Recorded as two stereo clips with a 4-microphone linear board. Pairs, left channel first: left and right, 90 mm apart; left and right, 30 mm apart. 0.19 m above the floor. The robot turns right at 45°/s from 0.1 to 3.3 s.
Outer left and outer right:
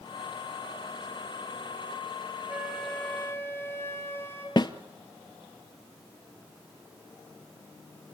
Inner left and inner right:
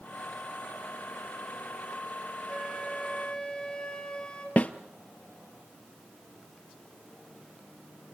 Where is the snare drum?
50° left (ahead or behind), 1.0 m.